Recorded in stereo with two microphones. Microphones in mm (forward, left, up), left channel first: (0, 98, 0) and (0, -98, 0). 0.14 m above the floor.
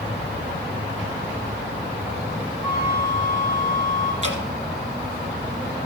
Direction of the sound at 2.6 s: 15° right (ahead or behind).